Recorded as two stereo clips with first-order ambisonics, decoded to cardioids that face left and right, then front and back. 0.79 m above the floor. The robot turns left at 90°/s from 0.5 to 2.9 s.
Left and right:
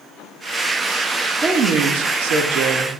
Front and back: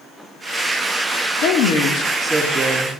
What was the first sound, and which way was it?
A woman speaking, 10° right.